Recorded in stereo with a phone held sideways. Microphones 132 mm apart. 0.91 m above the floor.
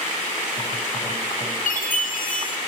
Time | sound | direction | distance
1.7 | a chime | 80° left | 1.1 m